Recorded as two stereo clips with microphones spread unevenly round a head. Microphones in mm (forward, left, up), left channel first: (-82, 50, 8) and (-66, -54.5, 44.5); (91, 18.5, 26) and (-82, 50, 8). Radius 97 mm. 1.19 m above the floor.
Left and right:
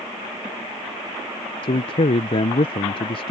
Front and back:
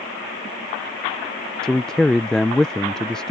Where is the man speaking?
80° left.